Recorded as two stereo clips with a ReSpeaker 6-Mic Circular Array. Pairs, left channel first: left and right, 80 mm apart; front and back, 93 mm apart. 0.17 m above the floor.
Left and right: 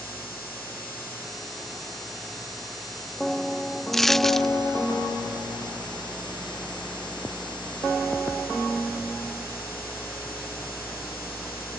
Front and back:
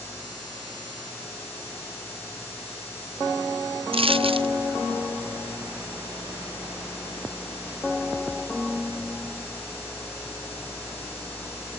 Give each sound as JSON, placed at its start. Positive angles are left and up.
{"t": 3.9, "sound": "a dropped coin", "azimuth_deg": 175}